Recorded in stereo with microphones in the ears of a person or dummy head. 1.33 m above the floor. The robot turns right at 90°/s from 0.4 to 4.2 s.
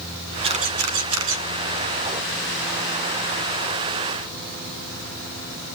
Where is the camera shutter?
30° right (ahead or behind), 1.1 m; by 1.4 s 60° right (ahead or behind), 1.1 m.